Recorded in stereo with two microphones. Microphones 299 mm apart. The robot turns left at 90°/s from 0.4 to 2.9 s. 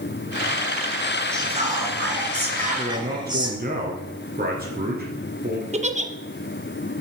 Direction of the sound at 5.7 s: 25° right (ahead or behind).